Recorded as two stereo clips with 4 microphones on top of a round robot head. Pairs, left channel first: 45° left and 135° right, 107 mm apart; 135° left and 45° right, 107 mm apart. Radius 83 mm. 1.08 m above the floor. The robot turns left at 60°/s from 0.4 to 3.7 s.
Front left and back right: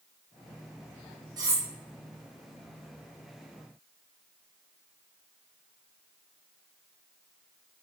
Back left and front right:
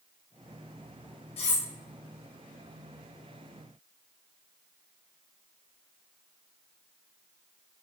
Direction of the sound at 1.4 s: 170° left.